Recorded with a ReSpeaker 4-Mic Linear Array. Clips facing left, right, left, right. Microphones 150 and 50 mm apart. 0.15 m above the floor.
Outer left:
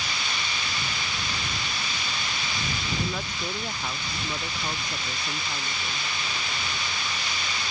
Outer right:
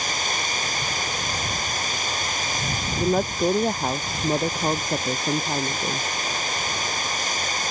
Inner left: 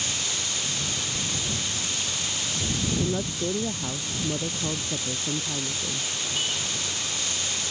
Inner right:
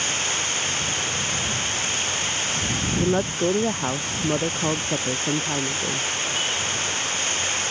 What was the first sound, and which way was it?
Running water, 45° right (ahead or behind).